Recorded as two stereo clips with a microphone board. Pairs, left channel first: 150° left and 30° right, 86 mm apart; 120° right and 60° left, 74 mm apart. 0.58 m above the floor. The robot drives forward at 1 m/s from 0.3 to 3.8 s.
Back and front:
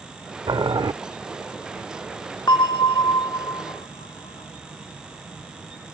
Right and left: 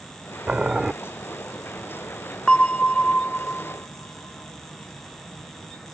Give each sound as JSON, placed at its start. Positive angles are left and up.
{"t": 0.5, "sound": "boiling", "azimuth_deg": -10}
{"t": 2.5, "sound": "a bell", "azimuth_deg": 165}